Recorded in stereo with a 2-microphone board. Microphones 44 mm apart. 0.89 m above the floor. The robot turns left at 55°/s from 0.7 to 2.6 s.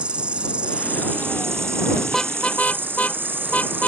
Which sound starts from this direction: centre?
A car horn, at 2.1 s.